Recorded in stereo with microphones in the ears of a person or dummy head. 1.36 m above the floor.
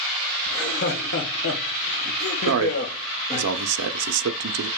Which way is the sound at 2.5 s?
70° right (ahead or behind).